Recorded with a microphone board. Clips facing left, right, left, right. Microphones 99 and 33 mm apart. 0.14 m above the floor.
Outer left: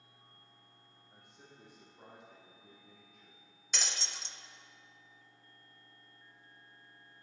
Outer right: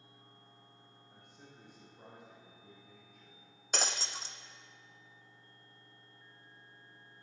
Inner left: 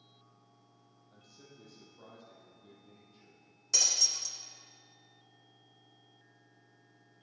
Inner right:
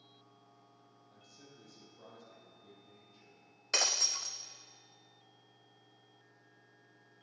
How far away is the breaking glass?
About 0.5 m.